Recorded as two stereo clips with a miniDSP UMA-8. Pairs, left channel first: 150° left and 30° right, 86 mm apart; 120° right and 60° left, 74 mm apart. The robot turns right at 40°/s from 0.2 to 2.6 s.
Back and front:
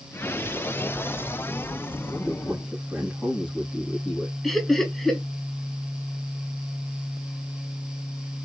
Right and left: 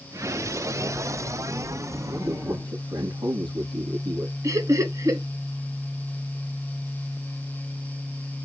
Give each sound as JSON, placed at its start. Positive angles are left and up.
{"t": 2.1, "sound": "a man speaking", "azimuth_deg": 45, "distance_m": 5.0}
{"t": 4.4, "sound": "laughter", "azimuth_deg": 65, "distance_m": 2.5}